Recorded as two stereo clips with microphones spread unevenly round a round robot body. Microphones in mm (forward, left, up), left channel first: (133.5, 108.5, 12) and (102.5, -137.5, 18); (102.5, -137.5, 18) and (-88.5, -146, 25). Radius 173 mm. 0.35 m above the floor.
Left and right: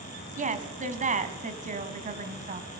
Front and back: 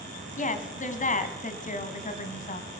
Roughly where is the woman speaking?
Ahead right.